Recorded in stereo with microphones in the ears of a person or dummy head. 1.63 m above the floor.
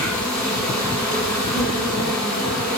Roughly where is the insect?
Centre.